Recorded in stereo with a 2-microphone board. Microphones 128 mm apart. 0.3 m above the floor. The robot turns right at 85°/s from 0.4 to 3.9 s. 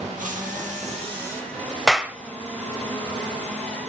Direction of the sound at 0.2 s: 100° right.